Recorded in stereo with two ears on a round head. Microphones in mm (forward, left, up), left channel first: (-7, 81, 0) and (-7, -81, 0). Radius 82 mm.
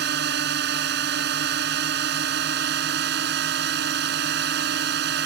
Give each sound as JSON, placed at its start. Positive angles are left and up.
{"t": 0.0, "sound": "a drone", "side_deg": -65}